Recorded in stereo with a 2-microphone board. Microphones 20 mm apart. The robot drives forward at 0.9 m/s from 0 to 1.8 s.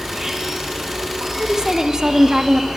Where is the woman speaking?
25° right (ahead or behind), 0.7 m; by 2.7 s 30° right (ahead or behind), 0.6 m.